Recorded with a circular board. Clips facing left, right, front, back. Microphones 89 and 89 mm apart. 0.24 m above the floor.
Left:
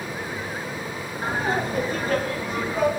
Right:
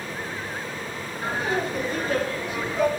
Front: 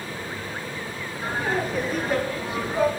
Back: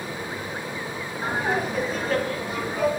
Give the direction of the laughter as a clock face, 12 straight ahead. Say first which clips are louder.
Left 1 dB, back 1 dB; 8 o'clock.